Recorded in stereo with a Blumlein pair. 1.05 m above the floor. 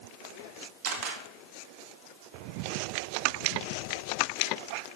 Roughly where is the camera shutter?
Ahead right.